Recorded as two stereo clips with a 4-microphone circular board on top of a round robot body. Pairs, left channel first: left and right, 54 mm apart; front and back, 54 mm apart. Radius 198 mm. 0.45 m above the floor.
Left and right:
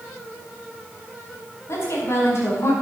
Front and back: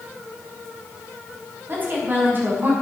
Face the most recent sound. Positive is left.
turn(degrees=130)